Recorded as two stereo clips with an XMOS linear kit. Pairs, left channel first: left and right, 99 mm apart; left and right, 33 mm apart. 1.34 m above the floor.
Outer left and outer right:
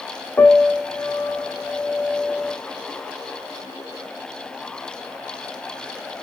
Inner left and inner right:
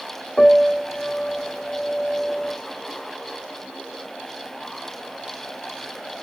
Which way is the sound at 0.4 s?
20° left (ahead or behind).